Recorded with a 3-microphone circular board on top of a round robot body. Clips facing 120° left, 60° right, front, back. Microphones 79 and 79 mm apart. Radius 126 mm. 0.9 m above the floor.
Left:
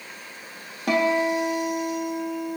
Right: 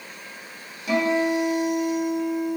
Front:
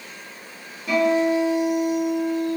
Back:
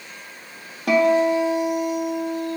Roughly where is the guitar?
Behind left.